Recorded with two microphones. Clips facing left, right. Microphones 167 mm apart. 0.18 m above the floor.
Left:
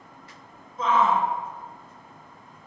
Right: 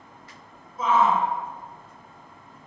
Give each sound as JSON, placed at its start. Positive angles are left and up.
{"t": 0.8, "sound": "a shout", "side_deg": -5, "distance_m": 1.8}